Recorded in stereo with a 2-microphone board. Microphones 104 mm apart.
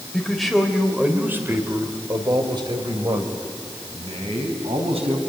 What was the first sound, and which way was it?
A man speaking, 5° left (ahead or behind).